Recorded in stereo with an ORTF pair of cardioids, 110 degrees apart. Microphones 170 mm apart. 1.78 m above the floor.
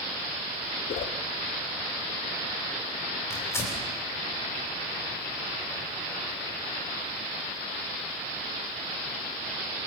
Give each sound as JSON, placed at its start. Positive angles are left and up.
{"t": 0.9, "sound": "a whoosh", "azimuth_deg": 55, "distance_m": 1.5}
{"t": 3.3, "sound": "tearing paper", "azimuth_deg": 15, "distance_m": 7.0}